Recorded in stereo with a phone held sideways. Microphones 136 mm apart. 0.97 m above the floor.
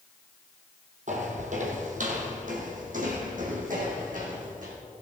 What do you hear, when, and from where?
1.1 s footsteps: 60° right (ahead or behind), 1.8 m; by 4.7 s 65° right (ahead or behind), 3 m